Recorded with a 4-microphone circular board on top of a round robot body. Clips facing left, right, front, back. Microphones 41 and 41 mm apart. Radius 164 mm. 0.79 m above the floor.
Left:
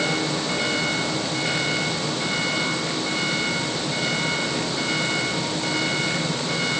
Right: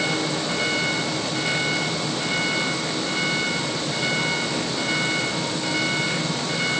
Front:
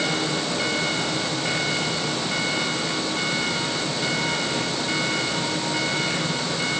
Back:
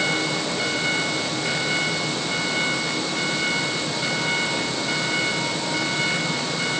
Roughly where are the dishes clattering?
No dishes clattering in this recording.